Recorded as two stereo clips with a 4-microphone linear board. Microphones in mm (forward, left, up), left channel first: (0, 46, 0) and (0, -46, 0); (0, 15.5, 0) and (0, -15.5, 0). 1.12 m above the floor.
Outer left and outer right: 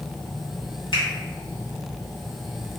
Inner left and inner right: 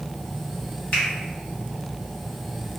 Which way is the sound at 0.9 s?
65° left (ahead or behind).